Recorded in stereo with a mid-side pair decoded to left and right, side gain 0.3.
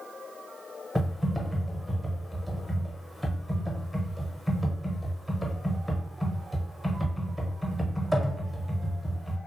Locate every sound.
0.9 s typing on a keyboard: straight ahead, 0.8 m